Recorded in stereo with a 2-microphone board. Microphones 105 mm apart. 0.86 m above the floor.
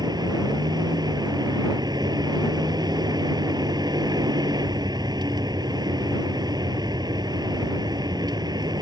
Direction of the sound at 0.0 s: 40° right (ahead or behind).